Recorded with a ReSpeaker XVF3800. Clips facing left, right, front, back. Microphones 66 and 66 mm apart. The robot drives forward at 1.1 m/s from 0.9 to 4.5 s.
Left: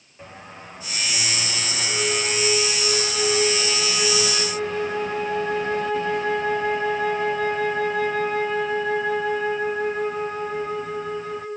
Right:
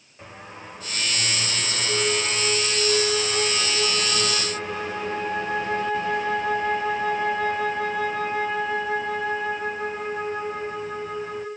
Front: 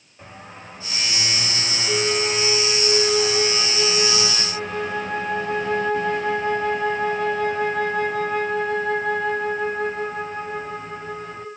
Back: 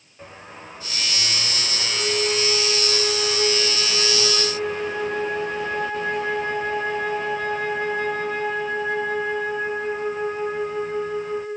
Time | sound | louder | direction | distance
1.9 | a flute | even, front 2 dB | 20° right | 9.5 m